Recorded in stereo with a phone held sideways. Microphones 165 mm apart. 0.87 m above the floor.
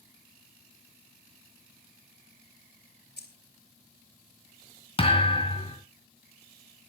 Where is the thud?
35° left (ahead or behind), 3 m.